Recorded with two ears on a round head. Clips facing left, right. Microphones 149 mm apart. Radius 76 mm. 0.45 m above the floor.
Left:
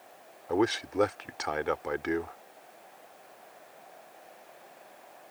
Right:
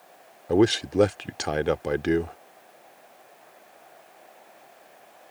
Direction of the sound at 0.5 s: 35° right (ahead or behind).